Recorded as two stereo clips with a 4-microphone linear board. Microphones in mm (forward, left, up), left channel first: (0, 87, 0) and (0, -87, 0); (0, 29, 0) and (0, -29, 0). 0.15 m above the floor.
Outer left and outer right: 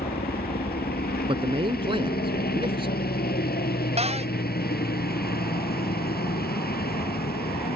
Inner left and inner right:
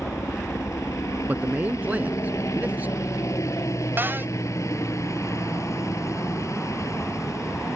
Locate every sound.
0.0 s a helicopter: 65° left (ahead or behind)
1.3 s a man speaking: 30° right (ahead or behind)
4.0 s a cupboard door: 35° right (ahead or behind)